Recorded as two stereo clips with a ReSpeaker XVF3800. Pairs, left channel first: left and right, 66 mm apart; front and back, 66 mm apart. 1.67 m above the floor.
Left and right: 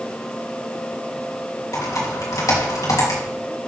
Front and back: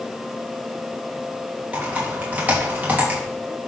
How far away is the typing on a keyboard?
About 2.5 m.